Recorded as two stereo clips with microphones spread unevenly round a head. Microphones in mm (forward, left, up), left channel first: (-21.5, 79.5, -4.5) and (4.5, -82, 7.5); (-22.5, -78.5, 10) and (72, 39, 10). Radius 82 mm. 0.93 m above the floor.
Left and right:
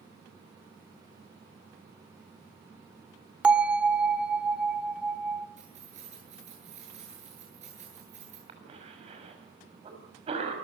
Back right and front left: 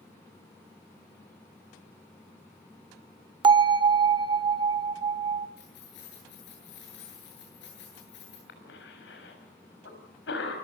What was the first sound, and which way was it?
A bell, straight ahead.